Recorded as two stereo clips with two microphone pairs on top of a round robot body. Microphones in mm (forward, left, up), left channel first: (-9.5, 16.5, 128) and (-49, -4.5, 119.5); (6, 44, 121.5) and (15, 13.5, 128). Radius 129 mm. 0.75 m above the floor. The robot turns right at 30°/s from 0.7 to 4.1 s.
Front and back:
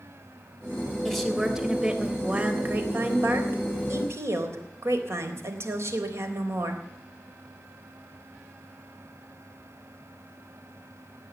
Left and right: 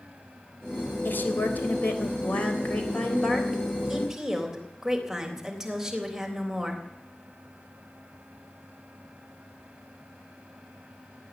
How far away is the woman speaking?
About 3.5 m.